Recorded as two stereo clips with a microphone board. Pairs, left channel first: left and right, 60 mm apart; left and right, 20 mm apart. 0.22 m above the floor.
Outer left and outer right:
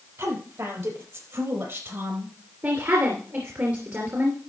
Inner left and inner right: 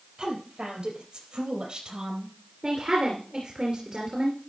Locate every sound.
0.2 s a woman speaking: 55° right (ahead or behind), 6 m; by 2.4 s 50° right (ahead or behind), 5 m
2.6 s a woman speaking: 40° right (ahead or behind), 3 m